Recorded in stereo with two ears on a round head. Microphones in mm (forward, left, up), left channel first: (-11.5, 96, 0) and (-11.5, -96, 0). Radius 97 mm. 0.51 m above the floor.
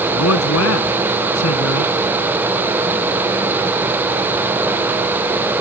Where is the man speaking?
80° left.